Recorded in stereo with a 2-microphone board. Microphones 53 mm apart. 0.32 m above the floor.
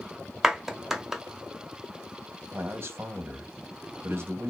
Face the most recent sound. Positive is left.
turn(degrees=-45)  # may be behind; listen again after turning